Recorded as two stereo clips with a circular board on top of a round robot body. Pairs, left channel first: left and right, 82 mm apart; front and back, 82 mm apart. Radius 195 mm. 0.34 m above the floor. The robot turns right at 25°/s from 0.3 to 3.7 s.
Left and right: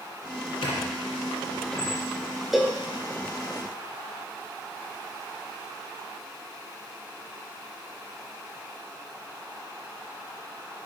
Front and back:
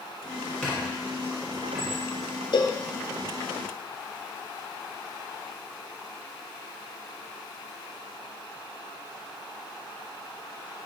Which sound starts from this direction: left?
A squeak, at 0.6 s.